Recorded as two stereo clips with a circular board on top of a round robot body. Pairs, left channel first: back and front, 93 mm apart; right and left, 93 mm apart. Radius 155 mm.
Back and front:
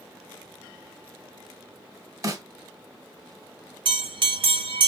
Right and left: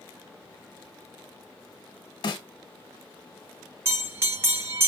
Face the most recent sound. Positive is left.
turn(degrees=25)